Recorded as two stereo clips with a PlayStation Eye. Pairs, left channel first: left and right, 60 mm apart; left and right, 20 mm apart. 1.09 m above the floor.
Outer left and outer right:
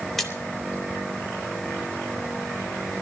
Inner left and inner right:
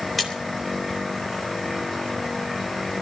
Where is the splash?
5° left (ahead or behind), 3.5 m.